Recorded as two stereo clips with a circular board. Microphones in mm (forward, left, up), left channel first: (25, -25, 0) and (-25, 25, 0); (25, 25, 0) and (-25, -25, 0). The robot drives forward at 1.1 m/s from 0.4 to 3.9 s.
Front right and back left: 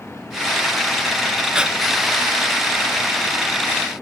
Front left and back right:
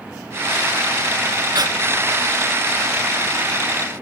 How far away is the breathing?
About 0.8 m.